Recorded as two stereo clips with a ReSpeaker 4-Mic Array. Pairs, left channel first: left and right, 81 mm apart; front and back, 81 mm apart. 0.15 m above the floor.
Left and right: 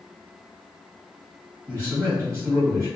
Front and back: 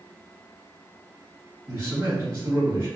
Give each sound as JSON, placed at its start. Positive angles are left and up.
{"t": 1.7, "sound": "a man speaking", "azimuth_deg": -130, "distance_m": 1.8}